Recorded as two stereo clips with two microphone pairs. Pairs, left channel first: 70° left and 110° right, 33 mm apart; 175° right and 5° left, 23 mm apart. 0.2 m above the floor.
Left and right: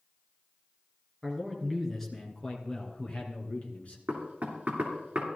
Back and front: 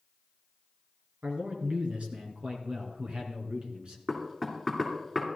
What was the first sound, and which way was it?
A man speaking, 15° right.